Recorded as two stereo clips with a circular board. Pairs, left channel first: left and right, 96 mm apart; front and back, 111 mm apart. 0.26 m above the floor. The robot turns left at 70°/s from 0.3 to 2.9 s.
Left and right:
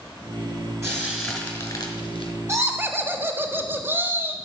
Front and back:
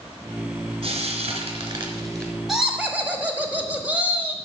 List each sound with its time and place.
0.8 s frying: 150° right, 1.8 m; by 2.3 s 105° left, 1.8 m
2.5 s laughter: 95° right, 1.0 m; by 4.3 s 125° right, 1.0 m